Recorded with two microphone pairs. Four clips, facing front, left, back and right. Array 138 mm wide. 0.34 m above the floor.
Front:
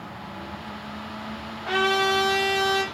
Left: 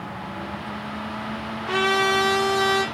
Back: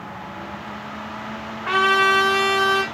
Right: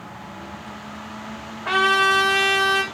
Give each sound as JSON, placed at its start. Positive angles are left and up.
{"t": 1.6, "sound": "a trumpet", "azimuth_deg": -150, "distance_m": 4.0}